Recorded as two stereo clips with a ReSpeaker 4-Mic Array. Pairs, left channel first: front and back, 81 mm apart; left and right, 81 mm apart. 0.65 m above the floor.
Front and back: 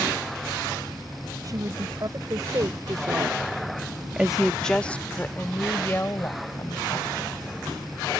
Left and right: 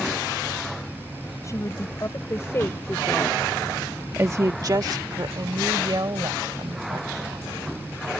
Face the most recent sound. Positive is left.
turn(degrees=-55)